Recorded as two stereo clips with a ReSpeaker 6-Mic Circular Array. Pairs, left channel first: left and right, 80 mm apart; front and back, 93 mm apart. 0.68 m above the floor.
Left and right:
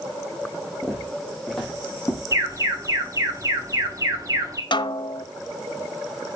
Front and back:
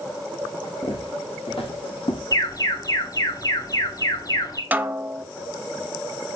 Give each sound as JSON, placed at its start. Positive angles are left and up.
{"t": 0.8, "sound": "footsteps", "azimuth_deg": 5, "distance_m": 4.5}
{"t": 2.3, "sound": "an alarm", "azimuth_deg": -45, "distance_m": 2.5}
{"t": 4.7, "sound": "a snare drum", "azimuth_deg": 110, "distance_m": 0.7}